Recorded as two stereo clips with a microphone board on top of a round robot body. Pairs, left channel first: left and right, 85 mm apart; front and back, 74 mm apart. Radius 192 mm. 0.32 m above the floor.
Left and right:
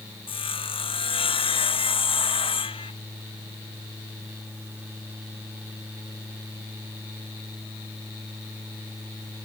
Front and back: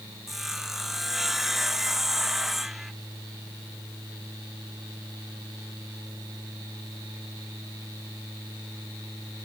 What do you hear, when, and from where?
0.3 s sawing: 90° left